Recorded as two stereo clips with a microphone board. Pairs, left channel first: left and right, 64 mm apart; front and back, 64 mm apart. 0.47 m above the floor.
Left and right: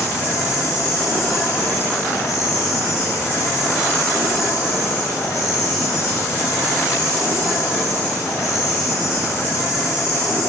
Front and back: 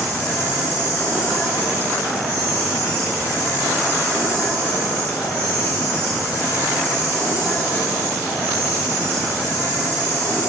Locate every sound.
0.0 s an insect: 60° left, 1.3 m